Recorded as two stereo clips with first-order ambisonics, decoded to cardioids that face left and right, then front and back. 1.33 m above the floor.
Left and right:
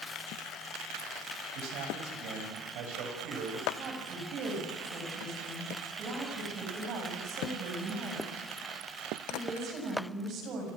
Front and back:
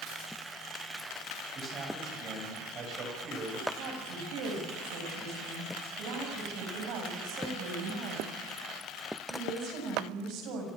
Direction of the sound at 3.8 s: 140° right.